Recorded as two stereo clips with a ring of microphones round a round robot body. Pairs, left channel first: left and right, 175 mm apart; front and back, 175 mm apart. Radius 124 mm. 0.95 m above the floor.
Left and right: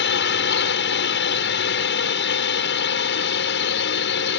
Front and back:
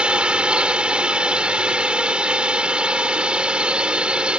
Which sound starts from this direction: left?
A drone, at 0.0 s.